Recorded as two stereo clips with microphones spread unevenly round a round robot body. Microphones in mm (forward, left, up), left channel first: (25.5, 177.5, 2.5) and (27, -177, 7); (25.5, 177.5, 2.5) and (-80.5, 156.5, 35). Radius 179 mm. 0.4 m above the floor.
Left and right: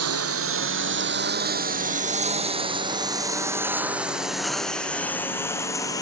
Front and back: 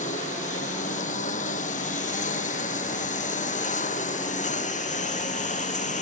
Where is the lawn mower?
40° right; by 6.0 s 10° left.